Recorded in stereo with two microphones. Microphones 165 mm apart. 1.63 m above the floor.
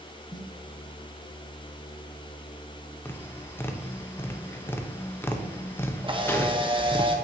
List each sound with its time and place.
0.3 s a snare drum: 25° left (ahead or behind), 0.8 m
3.0 s tapping: 15° left (ahead or behind), 0.6 m
6.0 s a camera shutter: 30° right (ahead or behind), 0.8 m